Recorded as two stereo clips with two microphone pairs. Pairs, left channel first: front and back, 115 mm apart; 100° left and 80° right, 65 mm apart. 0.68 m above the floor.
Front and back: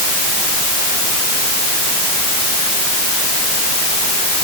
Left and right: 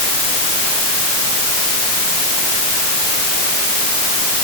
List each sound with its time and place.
Only background noise.